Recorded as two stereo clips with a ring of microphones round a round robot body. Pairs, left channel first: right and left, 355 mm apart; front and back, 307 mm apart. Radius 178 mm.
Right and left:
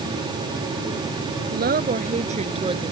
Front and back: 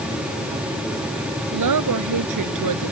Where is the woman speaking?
155° left; by 2.9 s 170° left.